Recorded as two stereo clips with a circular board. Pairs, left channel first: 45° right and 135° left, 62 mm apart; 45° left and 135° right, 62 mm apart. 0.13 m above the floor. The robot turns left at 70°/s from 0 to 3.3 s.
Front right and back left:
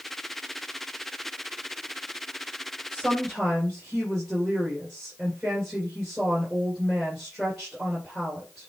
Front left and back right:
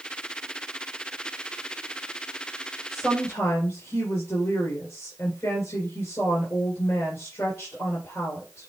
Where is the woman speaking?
75° left, 2.5 m; by 8.7 s 45° left, 2.5 m.